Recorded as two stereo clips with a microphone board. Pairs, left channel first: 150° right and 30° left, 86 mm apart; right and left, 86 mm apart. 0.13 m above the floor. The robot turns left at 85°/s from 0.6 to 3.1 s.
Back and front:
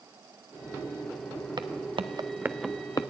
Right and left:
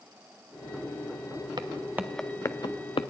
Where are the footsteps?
60° left, 1.4 m; by 3.1 s 125° right, 0.8 m.